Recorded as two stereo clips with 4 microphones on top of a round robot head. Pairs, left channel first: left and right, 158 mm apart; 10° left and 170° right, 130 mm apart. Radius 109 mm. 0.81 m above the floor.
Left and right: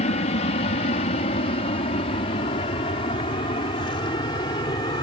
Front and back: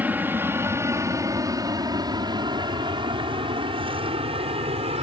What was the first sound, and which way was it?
An aircraft, 120° left.